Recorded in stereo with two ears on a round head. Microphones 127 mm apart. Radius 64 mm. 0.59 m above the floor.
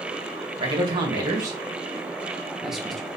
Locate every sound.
0.6 s a man speaking: 40° right (ahead or behind), 2 m; by 3.1 s 5° left (ahead or behind), 1.8 m